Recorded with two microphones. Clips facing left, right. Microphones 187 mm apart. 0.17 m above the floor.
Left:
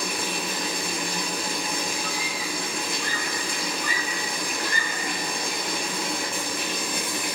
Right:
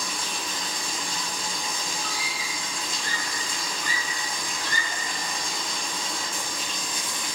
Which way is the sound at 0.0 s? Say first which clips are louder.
Left 5 dB; 65° left (ahead or behind).